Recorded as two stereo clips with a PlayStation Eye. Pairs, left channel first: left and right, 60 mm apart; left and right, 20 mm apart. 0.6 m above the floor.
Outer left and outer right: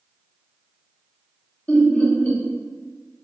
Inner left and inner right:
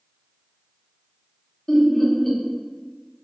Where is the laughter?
25° left (ahead or behind), 0.7 m.